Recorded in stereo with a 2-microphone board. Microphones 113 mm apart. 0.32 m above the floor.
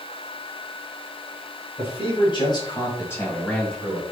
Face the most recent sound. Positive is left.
turn(degrees=0)  # may be behind; listen again after turning